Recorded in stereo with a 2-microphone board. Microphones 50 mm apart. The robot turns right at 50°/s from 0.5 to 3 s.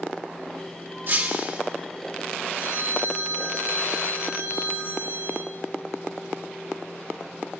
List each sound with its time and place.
1.1 s breaking glass: 45° right (ahead or behind), 1.2 m; by 1.6 s 30° right (ahead or behind), 1.2 m
2.6 s a phone ringing: 80° left, 2 m; by 5.5 s 70° left (ahead or behind), 2 m